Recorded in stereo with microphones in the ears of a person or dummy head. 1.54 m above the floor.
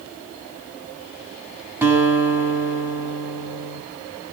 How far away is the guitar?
About 5.5 m.